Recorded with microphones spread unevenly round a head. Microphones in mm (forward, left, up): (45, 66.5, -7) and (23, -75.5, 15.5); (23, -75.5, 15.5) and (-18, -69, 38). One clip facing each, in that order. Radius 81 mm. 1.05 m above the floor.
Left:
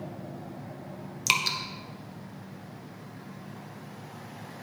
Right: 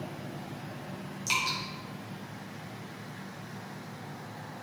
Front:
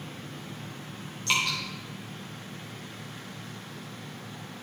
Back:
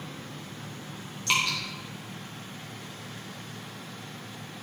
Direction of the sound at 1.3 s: 105° left.